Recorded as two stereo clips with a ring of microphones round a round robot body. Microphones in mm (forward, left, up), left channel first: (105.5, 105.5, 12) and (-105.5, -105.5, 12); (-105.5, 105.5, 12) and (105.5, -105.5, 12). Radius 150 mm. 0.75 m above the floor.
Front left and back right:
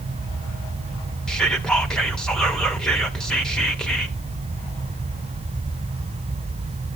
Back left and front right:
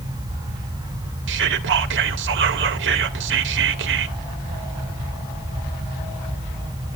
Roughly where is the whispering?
Ahead right.